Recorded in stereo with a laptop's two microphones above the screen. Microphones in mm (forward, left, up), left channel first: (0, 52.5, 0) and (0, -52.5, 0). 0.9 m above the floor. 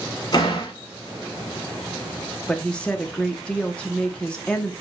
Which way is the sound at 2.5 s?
10° left (ahead or behind).